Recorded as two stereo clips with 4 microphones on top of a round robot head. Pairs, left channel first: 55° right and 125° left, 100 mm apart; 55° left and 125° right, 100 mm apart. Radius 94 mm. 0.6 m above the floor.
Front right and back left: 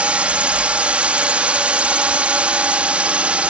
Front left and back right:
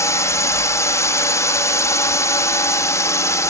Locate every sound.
0.0 s a drone: 60° left